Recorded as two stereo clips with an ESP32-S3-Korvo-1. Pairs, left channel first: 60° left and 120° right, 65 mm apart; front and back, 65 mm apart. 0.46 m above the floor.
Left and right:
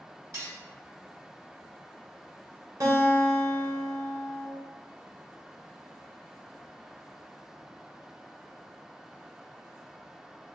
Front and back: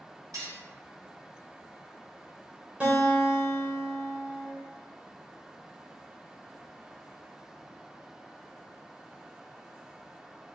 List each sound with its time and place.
0.3 s cutlery clinking: 155° right, 1.5 m
2.8 s a guitar: 110° right, 1.4 m